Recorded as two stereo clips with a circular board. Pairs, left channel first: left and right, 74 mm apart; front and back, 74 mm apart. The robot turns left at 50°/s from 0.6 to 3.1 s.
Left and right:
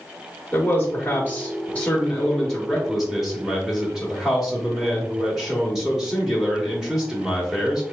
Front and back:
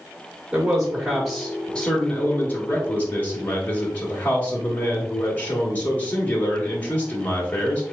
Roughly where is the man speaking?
Left.